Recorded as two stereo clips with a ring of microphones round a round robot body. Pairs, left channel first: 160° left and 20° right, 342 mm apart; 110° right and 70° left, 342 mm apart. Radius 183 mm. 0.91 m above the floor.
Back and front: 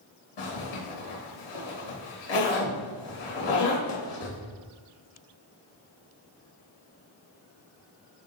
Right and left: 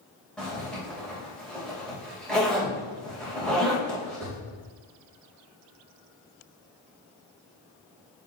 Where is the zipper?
160° left, 3 m.